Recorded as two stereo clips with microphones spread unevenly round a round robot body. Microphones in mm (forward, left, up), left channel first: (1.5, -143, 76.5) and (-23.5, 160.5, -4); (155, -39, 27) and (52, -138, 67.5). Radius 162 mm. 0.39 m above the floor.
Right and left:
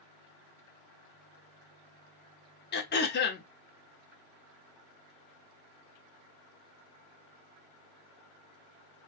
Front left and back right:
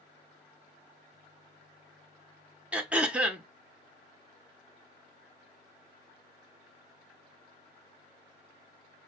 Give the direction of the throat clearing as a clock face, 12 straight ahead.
1 o'clock.